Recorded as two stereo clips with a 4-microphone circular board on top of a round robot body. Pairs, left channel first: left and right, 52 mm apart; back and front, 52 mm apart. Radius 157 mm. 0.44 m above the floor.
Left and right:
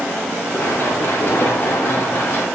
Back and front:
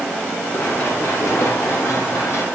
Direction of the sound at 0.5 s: 140° left.